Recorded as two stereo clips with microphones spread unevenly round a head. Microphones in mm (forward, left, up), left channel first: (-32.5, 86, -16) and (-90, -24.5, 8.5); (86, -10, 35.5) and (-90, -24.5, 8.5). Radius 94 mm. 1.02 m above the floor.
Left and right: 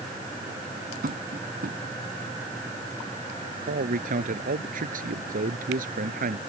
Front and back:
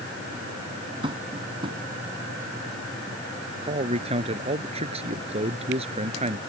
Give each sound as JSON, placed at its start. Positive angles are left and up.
{"t": 1.0, "sound": "tapping", "azimuth_deg": -110}
{"t": 3.6, "sound": "a man speaking", "azimuth_deg": -120}